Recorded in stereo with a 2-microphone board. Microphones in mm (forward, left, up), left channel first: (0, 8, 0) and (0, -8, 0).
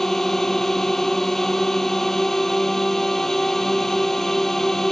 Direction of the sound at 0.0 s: 20° left (ahead or behind).